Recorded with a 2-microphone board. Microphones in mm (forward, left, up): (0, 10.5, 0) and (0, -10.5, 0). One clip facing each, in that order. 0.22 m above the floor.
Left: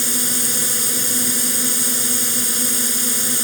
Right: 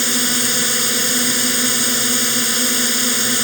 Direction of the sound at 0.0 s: 30° right (ahead or behind).